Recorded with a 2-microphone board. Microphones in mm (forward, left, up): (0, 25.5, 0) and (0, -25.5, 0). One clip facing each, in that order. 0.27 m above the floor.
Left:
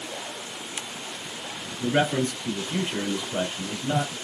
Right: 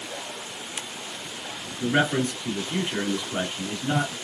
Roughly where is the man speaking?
Right.